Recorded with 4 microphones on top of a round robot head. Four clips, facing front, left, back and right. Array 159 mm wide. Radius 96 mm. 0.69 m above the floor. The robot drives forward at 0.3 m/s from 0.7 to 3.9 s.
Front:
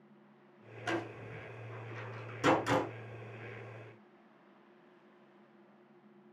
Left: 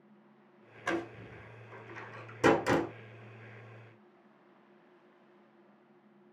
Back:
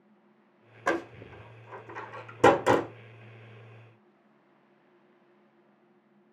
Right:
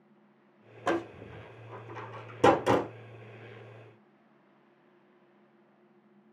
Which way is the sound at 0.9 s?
135° right.